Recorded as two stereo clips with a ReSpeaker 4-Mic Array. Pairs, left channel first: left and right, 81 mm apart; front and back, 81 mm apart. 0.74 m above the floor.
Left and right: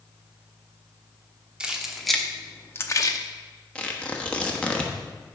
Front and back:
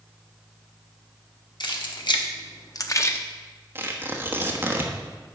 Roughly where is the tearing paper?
Behind left.